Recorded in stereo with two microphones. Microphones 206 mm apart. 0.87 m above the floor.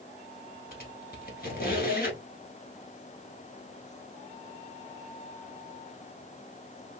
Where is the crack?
I don't hear a crack.